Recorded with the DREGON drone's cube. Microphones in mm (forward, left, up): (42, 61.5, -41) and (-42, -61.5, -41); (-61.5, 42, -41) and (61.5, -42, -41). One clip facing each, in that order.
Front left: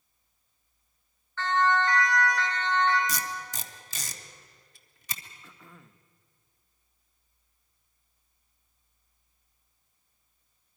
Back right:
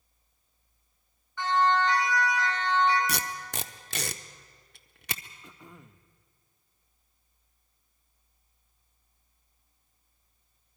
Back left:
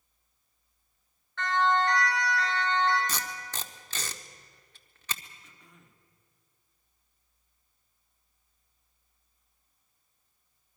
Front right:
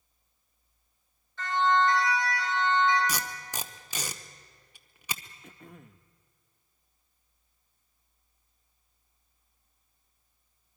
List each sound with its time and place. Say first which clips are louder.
1.4 s a siren: back right 1 dB, front right 1 dB; 160° left, 5.5 m
3.1 s tape being pulled: back right 1 dB, front right 2 dB; 110° right, 0.8 m
5.4 s throat clearing: back right 3 dB, front right 9 dB; 55° right, 0.7 m